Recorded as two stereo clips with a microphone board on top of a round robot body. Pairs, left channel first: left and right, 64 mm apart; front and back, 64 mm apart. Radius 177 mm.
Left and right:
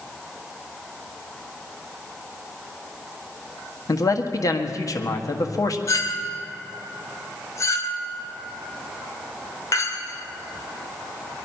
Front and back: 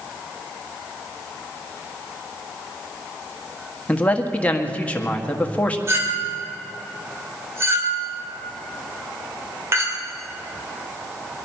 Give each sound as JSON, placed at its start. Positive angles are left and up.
{"t": 3.9, "sound": "a man speaking", "azimuth_deg": 65, "distance_m": 1.8}
{"t": 5.9, "sound": "a clink", "azimuth_deg": 130, "distance_m": 2.5}